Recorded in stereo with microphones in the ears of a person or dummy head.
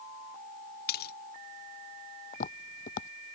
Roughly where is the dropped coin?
Left.